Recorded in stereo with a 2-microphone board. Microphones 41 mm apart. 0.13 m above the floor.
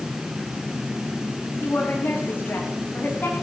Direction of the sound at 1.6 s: 50° left (ahead or behind).